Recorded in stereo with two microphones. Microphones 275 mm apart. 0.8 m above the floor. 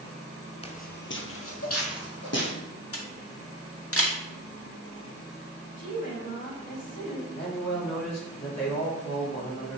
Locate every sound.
0.6 s footsteps: 20° left (ahead or behind), 0.8 m; by 2.5 s 65° left (ahead or behind), 2.5 m
2.9 s a camera shutter: 55° left (ahead or behind), 1.3 m
5.8 s a woman speaking: 45° left (ahead or behind), 3 m
7.3 s a man speaking: 70° left (ahead or behind), 2.5 m